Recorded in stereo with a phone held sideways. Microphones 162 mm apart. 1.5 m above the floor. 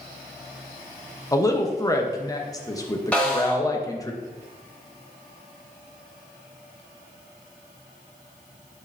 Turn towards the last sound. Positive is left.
turn(degrees=10)  # may be behind; listen again after turning